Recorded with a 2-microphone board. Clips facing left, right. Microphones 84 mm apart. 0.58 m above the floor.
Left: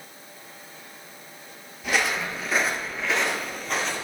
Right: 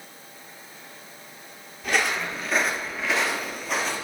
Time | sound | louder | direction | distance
1.8 | footsteps | even | centre (ahead or behind) | 0.7 m